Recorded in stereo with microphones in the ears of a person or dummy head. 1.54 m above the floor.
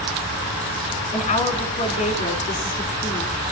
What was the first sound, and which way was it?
A woman speaking, 30° left (ahead or behind).